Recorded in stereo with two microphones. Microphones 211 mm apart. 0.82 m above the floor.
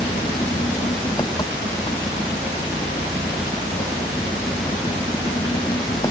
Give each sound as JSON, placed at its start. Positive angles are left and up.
{"t": 0.0, "sound": "an engine running", "side_deg": 20}